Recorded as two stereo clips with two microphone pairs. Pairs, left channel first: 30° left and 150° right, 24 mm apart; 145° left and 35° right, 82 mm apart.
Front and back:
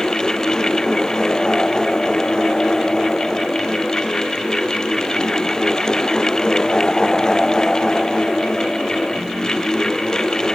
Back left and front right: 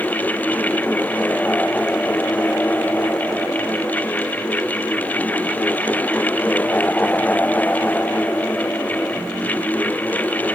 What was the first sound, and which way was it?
Only background noise.